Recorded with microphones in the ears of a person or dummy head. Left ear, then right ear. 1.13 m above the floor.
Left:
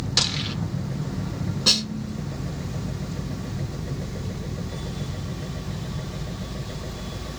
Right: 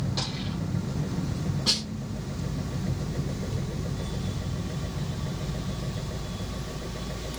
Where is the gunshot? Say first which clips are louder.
Left 11 dB; 50° left (ahead or behind), 0.6 m.